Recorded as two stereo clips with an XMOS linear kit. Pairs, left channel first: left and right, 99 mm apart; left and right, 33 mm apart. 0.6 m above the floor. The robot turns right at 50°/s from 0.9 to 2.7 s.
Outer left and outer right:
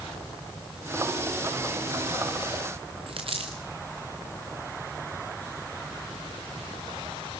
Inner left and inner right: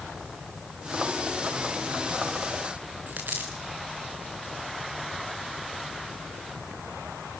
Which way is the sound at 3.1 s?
65° right (ahead or behind).